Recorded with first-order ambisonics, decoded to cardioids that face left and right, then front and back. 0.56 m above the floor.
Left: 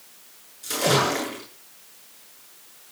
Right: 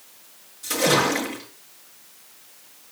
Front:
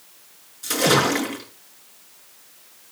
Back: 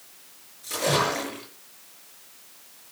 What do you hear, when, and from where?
0.6 s a splash: straight ahead, 7 m